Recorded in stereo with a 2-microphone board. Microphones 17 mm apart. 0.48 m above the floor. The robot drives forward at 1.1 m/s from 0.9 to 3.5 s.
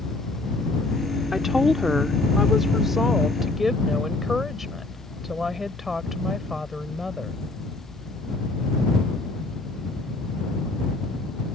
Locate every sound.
1.3 s a woman speaking: 20° right (ahead or behind); by 7.3 s 10° right (ahead or behind)